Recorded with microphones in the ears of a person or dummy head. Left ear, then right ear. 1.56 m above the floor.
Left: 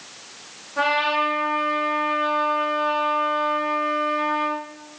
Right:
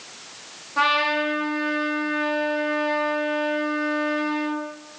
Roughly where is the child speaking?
I don't hear a child speaking.